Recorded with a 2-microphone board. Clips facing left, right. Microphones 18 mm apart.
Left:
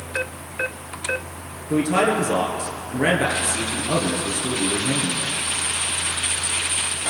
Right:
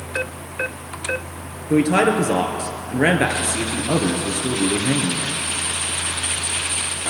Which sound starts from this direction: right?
A man speaking, at 1.7 s.